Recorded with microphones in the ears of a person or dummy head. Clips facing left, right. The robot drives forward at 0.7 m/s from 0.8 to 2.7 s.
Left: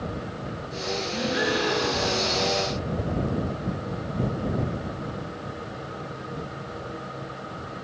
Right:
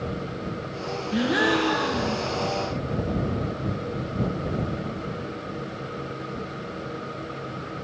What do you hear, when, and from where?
1.1 s a gasp: 70° right (ahead or behind), 0.9 m; by 2.3 s 40° right (ahead or behind), 1.3 m